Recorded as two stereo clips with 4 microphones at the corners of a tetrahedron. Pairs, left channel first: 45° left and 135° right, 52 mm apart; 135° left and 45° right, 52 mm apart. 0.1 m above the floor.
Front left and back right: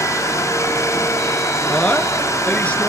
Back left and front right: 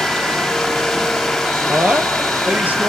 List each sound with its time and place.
0.0 s running water: 45° left, 8.5 m
1.7 s a woman speaking: 5° right, 2 m